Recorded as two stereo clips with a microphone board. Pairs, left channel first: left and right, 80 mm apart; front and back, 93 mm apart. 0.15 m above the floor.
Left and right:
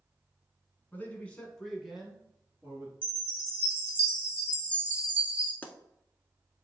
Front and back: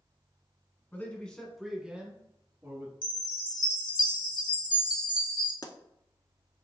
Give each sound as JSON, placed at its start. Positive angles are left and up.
{"t": 0.9, "sound": "a man speaking", "azimuth_deg": 50, "distance_m": 1.3}
{"t": 3.0, "sound": "a chime", "azimuth_deg": -25, "distance_m": 1.5}
{"t": 5.6, "sound": "a pop", "azimuth_deg": 25, "distance_m": 0.6}